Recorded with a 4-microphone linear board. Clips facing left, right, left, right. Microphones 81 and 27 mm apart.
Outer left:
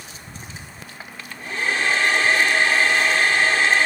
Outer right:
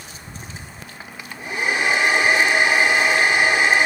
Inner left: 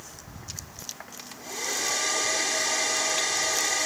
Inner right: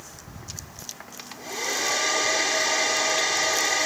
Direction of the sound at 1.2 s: 15° right (ahead or behind).